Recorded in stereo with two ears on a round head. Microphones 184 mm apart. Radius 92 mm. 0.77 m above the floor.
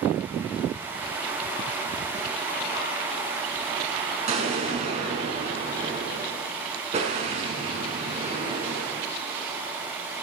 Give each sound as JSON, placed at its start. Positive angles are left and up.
{"t": 4.3, "sound": "an explosion", "side_deg": -35, "distance_m": 5.5}